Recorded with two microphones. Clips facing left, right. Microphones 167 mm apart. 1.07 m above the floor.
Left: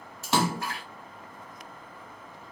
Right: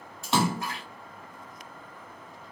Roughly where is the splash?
Centre.